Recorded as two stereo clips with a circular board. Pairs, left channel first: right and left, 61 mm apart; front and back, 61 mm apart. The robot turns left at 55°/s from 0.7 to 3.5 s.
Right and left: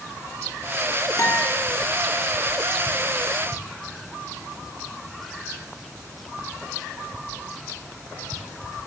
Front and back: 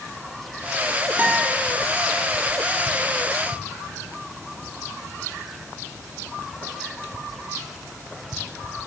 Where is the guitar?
115° right, 3 m; by 1.6 s 140° right, 3 m.